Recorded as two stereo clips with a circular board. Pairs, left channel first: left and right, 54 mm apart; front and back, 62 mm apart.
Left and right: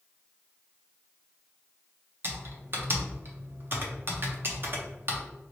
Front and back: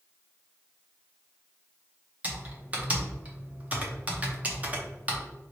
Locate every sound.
2.2 s typing on a keyboard: 120° right, 0.8 m